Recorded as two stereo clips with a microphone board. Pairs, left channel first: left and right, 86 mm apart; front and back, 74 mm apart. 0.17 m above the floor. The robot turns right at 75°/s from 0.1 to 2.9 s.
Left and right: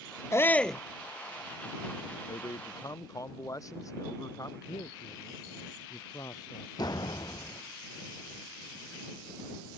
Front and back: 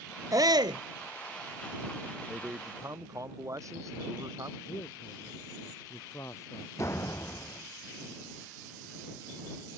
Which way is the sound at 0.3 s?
145° left.